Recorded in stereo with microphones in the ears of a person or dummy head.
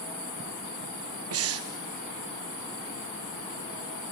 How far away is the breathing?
About 0.9 m.